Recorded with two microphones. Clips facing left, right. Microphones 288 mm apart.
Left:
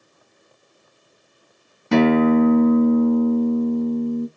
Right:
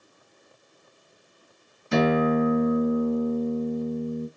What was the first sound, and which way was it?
A guitar, 75° left (ahead or behind).